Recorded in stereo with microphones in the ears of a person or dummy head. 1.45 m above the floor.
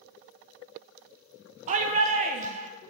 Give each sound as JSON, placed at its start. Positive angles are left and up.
{"t": 1.7, "sound": "a shout", "side_deg": -40, "distance_m": 1.0}